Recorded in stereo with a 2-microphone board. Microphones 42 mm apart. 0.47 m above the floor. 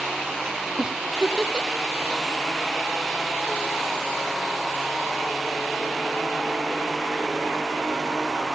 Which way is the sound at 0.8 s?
15° right (ahead or behind).